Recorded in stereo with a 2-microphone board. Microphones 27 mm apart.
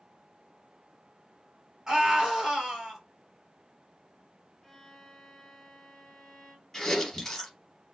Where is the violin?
15° left (ahead or behind), 0.7 m.